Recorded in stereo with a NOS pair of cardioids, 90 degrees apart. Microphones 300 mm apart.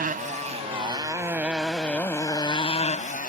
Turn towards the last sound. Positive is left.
turn(degrees=30)